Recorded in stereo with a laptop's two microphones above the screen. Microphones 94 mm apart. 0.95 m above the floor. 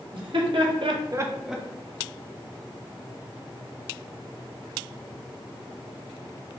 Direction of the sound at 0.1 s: 60° right (ahead or behind).